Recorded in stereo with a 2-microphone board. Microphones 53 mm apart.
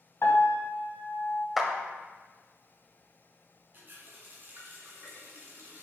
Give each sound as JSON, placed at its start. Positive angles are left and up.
{"t": 0.2, "sound": "a piano", "side_deg": 55, "distance_m": 1.2}
{"t": 1.6, "sound": "a clap", "side_deg": -5, "distance_m": 0.8}
{"t": 3.7, "sound": "a running tap", "side_deg": -40, "distance_m": 1.8}